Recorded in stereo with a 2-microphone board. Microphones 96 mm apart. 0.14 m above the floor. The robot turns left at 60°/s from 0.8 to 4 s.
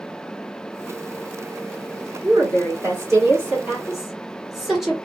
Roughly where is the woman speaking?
Right.